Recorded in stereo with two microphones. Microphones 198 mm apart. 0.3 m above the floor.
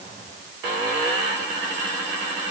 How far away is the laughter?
I don't hear laughter.